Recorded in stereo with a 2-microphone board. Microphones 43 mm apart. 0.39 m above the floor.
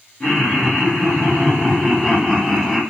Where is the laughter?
30° left (ahead or behind), 3.5 m; by 2.8 s centre (ahead or behind), 1.6 m.